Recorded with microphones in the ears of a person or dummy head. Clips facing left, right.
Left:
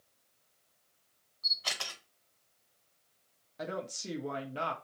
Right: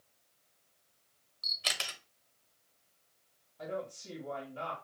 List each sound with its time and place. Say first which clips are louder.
1.4 s a camera shutter: even; 40° right (ahead or behind), 1.6 m
3.6 s a woman speaking: left 1 dB; 85° left, 1.2 m